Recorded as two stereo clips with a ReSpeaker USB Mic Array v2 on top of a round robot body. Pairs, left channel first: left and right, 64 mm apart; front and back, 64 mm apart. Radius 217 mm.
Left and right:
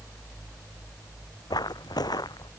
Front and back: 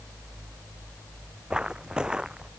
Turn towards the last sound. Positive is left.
turn(degrees=100)